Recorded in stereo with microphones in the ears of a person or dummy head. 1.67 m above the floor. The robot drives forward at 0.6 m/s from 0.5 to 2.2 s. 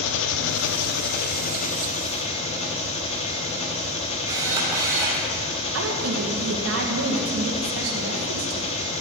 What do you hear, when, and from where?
0.0 s an engine running: 75° left (ahead or behind), 0.9 m; by 9.0 s 40° left (ahead or behind), 1.4 m
4.3 s a camera shutter: 20° right (ahead or behind), 3 m
5.7 s a woman speaking: 85° right, 2 m